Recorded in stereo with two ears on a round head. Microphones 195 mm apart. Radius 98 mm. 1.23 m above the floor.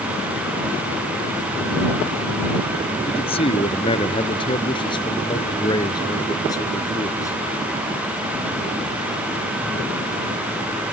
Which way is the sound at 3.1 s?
30° left (ahead or behind).